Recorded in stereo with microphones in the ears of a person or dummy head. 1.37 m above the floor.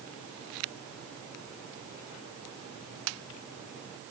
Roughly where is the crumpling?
No crumpling in this recording.